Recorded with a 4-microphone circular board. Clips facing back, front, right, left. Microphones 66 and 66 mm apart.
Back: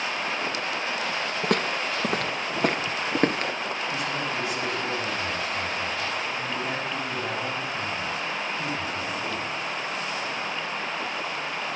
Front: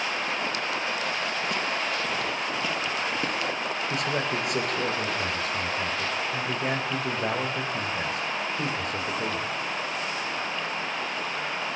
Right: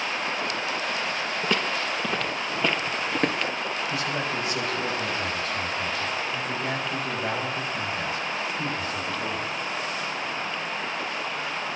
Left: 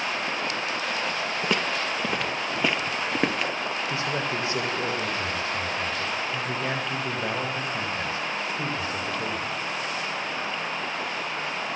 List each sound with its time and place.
1.4 s footsteps: 175° left, 3 m; by 3.5 s straight behind, 2 m
3.9 s a man speaking: 25° left, 9 m